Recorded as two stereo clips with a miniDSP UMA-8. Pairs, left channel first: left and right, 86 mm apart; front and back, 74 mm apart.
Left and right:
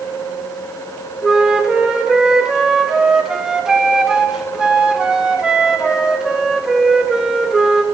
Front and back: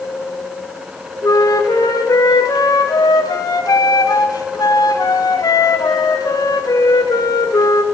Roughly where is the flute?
Ahead.